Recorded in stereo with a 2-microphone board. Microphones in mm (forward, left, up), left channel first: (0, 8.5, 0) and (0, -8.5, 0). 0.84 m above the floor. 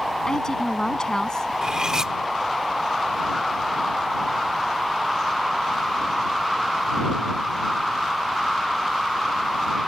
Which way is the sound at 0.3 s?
35° left (ahead or behind).